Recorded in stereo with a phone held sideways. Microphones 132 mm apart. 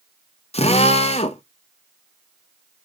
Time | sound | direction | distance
0.5 | a drill | 50° left (ahead or behind) | 0.7 m